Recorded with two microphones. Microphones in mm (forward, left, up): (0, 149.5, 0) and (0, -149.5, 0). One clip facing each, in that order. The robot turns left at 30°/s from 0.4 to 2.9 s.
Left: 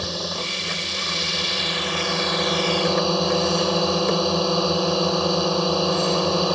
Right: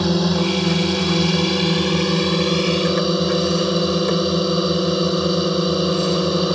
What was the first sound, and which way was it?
A drone, 85° right.